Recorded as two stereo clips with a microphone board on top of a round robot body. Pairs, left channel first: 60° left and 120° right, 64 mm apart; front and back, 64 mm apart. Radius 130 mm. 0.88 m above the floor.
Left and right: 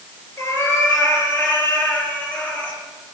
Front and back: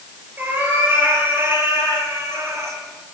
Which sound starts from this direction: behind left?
A cat meowing, at 0.4 s.